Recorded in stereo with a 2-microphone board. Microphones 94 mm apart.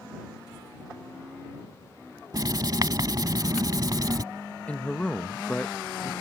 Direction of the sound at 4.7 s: 15° left (ahead or behind).